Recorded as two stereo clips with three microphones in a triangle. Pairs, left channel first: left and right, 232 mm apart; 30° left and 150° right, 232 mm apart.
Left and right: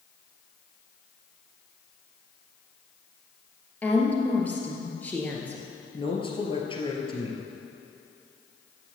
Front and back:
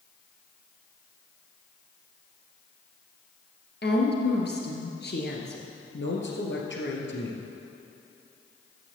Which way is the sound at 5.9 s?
30° left.